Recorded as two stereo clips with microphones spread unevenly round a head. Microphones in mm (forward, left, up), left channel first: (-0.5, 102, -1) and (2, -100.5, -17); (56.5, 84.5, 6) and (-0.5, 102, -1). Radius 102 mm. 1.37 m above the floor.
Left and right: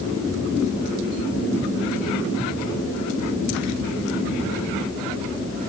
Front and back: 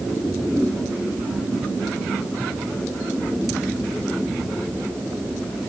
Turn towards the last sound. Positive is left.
No sound to turn to.